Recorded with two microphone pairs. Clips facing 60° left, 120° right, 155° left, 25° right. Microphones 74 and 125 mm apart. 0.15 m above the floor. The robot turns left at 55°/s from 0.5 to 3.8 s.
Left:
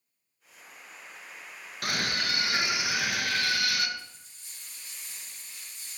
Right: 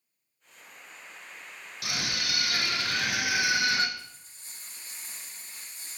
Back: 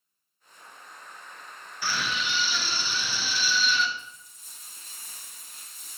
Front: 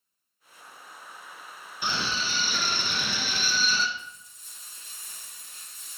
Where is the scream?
40° left, 1.8 m; by 3.9 s 70° right, 1.8 m.